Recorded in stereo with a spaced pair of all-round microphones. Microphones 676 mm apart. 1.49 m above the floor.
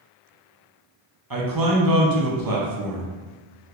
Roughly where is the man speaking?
Right.